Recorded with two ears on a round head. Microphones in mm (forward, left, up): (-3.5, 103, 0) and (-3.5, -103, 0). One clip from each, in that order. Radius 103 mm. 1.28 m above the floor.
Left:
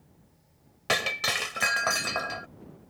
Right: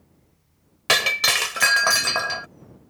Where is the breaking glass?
35° right (ahead or behind).